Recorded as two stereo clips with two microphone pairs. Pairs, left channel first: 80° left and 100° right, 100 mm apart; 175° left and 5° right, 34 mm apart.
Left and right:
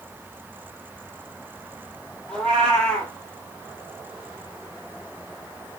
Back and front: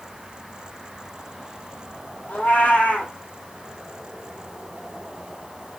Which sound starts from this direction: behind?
A cat meowing, at 2.3 s.